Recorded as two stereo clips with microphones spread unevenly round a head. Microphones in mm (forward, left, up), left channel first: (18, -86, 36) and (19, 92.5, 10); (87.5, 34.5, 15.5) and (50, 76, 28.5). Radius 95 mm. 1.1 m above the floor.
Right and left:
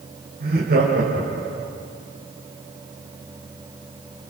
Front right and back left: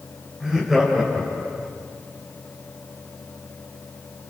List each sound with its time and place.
0.4 s laughter: 50° left, 4.5 m